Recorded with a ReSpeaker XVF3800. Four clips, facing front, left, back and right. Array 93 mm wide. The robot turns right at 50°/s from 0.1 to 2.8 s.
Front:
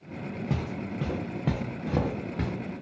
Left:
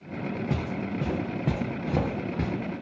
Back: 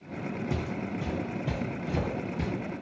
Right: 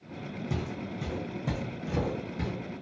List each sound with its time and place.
0.5 s footsteps: 45° left, 0.6 m; by 2.5 s 55° left, 0.9 m